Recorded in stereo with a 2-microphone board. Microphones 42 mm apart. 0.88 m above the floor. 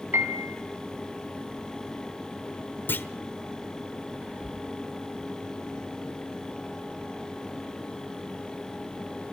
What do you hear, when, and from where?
0.1 s a piano: 70° right (ahead or behind), 4.5 m
2.9 s a clunk: 55° left (ahead or behind), 1.1 m
4.2 s whispering: 35° right (ahead or behind), 2.5 m